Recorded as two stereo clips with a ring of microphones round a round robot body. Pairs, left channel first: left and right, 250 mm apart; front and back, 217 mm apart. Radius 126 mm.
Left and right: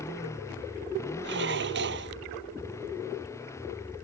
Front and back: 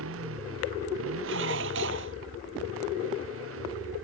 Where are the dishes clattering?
135° right.